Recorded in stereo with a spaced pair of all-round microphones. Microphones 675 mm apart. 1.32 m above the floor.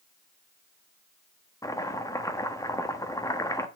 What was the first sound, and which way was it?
Chopping, 5° left (ahead or behind).